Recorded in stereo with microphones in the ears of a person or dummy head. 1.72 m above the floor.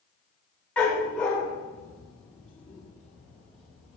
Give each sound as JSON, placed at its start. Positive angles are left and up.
{"t": 0.8, "sound": "a dog barking", "side_deg": 10, "distance_m": 2.0}